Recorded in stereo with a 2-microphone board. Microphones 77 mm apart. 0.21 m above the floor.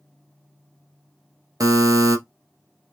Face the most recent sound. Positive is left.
turn(degrees=-50)  # may be behind; listen again after turning